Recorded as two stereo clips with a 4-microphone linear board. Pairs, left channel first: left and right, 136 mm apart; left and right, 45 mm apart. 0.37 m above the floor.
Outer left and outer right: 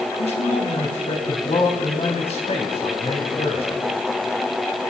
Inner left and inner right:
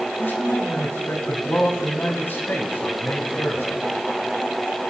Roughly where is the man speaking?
Left.